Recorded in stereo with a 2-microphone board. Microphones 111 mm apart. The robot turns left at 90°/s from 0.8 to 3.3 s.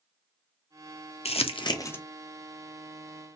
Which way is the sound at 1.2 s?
65° left (ahead or behind).